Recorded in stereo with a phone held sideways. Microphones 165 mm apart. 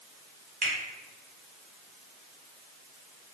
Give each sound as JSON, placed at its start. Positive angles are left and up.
{"t": 0.6, "sound": "a finger snap", "side_deg": -55, "distance_m": 1.0}